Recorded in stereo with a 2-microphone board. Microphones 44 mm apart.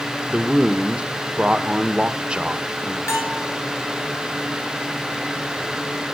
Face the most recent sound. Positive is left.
turn(degrees=85)